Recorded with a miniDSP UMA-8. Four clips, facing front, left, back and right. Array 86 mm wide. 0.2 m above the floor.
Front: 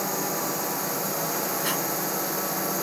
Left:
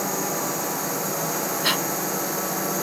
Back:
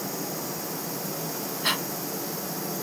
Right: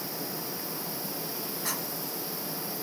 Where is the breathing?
115° left.